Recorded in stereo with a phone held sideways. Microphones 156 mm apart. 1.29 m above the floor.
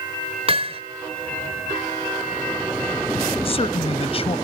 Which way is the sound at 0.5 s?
40° right (ahead or behind).